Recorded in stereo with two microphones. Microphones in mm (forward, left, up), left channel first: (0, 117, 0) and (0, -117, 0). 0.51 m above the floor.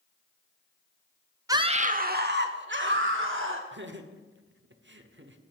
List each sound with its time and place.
1.5 s a scream: 15° right (ahead or behind), 0.7 m; by 3.6 s 60° right (ahead or behind), 2.5 m
3.7 s laughter: 50° right (ahead or behind), 1.1 m